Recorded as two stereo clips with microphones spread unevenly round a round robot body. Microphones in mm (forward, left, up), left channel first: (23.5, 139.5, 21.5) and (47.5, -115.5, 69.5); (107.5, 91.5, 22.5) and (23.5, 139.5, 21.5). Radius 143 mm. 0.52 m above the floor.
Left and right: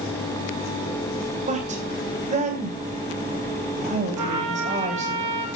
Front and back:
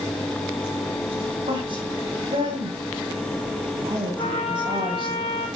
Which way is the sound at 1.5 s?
150° right.